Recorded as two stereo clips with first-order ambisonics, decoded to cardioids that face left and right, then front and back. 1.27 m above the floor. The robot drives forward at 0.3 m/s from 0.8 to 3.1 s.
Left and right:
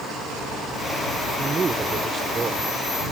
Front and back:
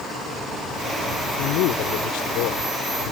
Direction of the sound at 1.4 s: 15° right.